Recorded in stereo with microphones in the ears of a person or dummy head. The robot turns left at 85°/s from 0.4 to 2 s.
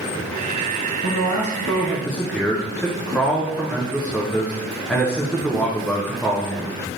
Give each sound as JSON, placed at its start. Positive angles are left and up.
{"t": 1.0, "sound": "a man speaking", "azimuth_deg": 90, "distance_m": 0.5}